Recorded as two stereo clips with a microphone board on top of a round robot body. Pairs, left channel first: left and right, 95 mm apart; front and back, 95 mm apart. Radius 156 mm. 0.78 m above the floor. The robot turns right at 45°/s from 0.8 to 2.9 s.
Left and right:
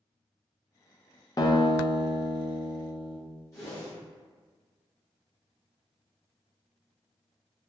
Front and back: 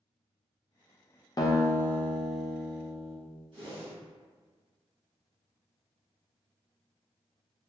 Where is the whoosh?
150° left, 1.7 m.